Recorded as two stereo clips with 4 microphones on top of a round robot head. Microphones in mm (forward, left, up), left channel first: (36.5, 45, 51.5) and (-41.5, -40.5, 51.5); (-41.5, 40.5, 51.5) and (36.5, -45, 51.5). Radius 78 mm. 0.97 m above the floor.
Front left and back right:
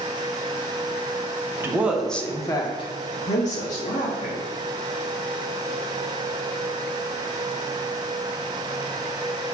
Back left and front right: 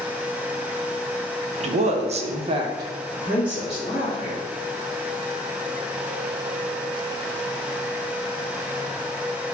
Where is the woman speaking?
65° right, 0.8 m; by 4.4 s 45° left, 1.6 m.